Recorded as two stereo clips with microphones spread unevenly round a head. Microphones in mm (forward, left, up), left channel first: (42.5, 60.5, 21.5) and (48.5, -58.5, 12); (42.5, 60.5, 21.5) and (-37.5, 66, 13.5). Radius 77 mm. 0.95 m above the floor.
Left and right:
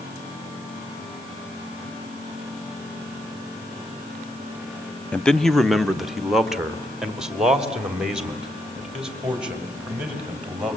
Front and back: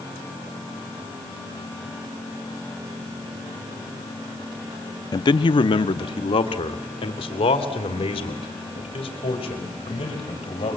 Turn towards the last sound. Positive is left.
turn(degrees=-5)